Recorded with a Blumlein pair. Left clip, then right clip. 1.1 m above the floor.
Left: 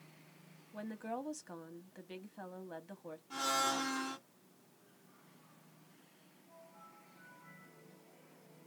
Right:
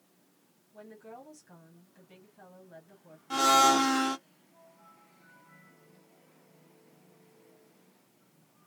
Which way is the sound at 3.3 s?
35° right.